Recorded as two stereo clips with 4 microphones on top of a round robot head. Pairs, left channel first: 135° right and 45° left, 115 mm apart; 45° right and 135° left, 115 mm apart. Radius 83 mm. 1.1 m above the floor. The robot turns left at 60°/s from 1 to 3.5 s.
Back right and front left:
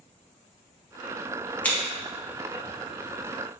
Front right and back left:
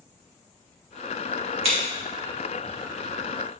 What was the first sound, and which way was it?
Scissors, 150° left.